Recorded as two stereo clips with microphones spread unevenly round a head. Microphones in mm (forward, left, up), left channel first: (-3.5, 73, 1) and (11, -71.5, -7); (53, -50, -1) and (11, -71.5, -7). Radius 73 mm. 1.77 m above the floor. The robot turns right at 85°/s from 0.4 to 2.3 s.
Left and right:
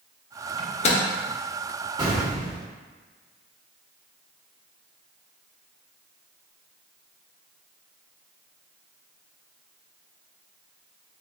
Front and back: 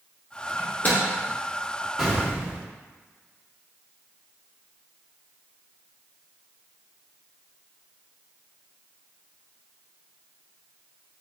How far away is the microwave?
About 0.7 m.